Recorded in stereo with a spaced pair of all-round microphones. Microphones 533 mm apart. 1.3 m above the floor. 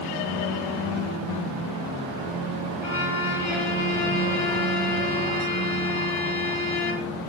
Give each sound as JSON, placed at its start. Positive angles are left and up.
{"t": 2.8, "sound": "a violin", "side_deg": -65, "distance_m": 2.5}